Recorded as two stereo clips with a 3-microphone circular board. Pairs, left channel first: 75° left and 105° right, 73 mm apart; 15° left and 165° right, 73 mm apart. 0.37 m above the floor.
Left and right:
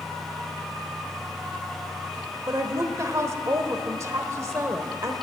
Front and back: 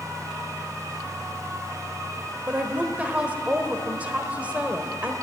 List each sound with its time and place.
2.5 s a woman speaking: 105° right, 1.1 m